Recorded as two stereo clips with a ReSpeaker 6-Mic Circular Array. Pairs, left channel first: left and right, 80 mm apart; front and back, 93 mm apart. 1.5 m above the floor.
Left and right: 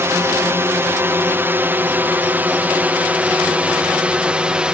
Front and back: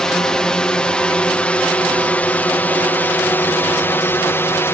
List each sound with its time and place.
0.0 s a drone: 75° right; by 4.7 s 25° right